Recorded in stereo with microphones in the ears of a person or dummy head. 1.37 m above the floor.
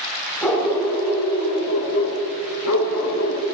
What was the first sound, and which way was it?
A dog barking, centre (ahead or behind).